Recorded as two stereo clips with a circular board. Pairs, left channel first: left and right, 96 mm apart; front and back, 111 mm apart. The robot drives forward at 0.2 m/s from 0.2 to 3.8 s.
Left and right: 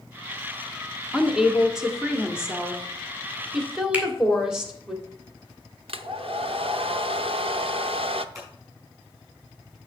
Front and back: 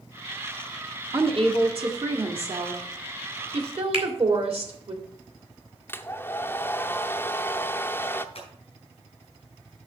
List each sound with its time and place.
1.1 s a woman speaking: 170° right, 1.5 m
3.9 s a finger snap: 160° right, 2 m
5.9 s a hair dryer: 70° right, 0.6 m
8.3 s scissors: 35° right, 5 m